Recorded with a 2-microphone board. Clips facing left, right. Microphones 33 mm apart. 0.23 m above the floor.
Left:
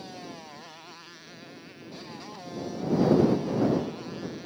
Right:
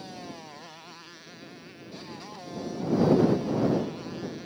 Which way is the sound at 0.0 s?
Centre (ahead or behind).